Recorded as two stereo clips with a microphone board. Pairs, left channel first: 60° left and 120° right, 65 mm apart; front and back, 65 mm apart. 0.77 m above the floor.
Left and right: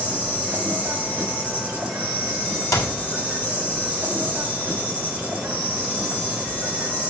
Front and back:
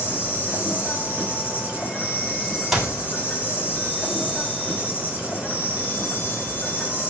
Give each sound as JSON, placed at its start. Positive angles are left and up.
{"t": 0.0, "sound": "an insect", "azimuth_deg": -55, "distance_m": 4.5}
{"t": 2.7, "sound": "a clap", "azimuth_deg": 95, "distance_m": 2.0}